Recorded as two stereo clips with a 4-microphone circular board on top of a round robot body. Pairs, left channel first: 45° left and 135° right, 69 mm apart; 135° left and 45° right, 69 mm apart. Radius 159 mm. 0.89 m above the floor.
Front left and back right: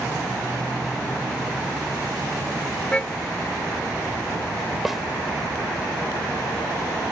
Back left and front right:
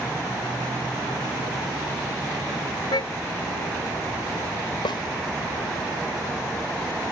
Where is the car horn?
120° left.